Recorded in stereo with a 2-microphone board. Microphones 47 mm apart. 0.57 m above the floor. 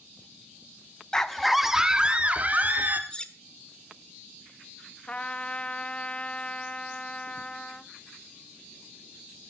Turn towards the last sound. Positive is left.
turn(degrees=25)  # may be behind; listen again after turning